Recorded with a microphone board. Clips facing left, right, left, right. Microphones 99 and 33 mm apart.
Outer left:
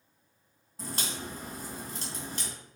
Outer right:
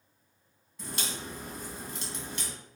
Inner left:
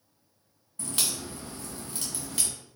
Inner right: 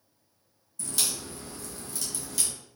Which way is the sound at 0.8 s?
40° left (ahead or behind).